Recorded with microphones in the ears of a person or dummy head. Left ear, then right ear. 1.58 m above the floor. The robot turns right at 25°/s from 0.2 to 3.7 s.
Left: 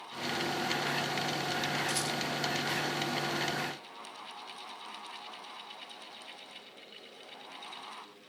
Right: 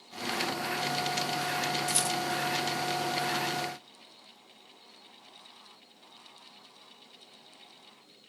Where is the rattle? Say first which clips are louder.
Right 3 dB; 55° right (ahead or behind), 3.5 m; by 2.2 s 65° right (ahead or behind), 3.5 m.